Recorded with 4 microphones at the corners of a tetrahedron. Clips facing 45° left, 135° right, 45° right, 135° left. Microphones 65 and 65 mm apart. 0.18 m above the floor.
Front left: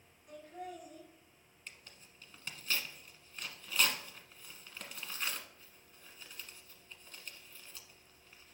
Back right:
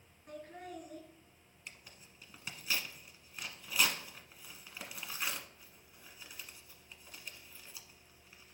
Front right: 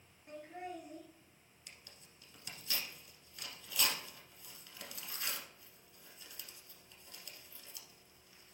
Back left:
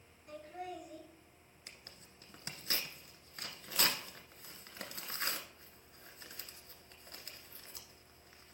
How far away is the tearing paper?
About 1.0 m.